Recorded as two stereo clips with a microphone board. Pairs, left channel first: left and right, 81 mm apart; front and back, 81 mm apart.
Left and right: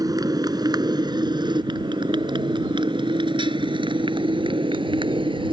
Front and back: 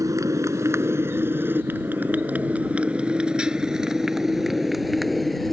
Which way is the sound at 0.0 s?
130° right.